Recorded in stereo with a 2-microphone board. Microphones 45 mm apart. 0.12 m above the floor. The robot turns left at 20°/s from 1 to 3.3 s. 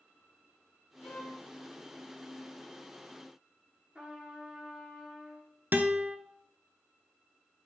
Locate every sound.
1.0 s a violin: 40° left (ahead or behind), 5 m; by 1.4 s 30° left (ahead or behind), 5 m
4.0 s a trumpet: 25° right (ahead or behind), 2.5 m
5.7 s a guitar: 45° right (ahead or behind), 0.8 m